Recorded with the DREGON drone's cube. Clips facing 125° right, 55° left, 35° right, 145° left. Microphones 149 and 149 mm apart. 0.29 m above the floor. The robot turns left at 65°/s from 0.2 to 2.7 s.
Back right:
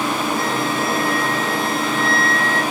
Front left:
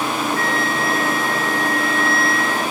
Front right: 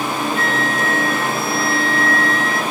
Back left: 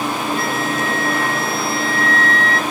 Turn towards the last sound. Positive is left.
turn(degrees=165)